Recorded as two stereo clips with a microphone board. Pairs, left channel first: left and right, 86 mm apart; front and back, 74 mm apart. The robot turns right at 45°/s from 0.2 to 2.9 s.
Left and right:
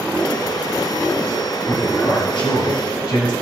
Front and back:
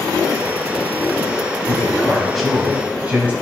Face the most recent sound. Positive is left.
turn(degrees=110)